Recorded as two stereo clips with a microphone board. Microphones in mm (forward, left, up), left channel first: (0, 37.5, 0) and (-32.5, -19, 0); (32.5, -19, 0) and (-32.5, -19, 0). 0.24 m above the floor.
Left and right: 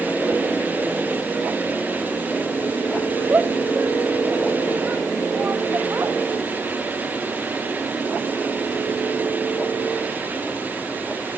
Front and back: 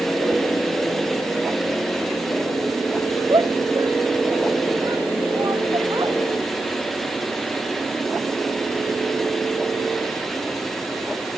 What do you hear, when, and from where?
3.3 s a shout: straight behind; by 6.2 s 175° right